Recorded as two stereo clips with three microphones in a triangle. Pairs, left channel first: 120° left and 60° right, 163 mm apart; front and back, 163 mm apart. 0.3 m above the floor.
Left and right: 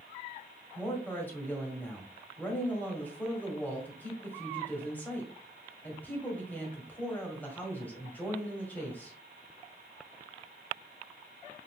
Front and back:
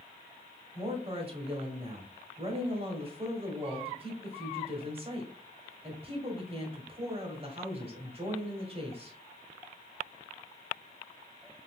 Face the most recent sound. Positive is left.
turn(degrees=-165)